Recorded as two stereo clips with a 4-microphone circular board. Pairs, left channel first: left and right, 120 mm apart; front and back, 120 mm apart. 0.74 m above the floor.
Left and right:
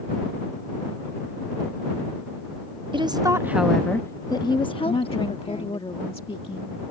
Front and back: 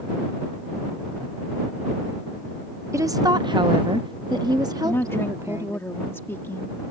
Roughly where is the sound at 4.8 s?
Ahead left.